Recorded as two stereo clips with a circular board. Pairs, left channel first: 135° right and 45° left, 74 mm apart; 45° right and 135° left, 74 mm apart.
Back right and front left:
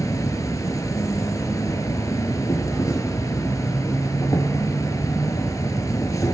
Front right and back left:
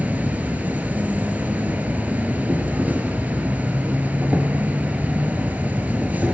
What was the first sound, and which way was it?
An insect, 160° right.